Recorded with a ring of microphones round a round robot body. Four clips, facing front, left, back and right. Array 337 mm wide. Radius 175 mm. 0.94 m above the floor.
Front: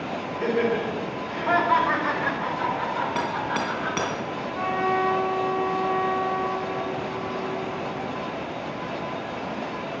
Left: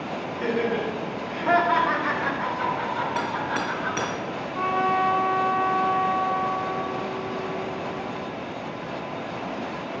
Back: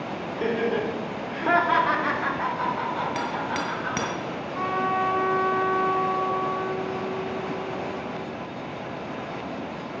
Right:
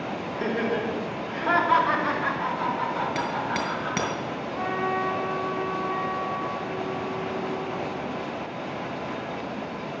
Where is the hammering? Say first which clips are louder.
Left 1 dB, front 2 dB; 130° right, 3 m.